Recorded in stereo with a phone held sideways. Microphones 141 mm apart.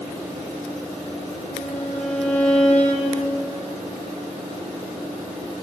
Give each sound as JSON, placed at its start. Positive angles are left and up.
{"t": 1.5, "sound": "a violin", "side_deg": 10, "distance_m": 2.5}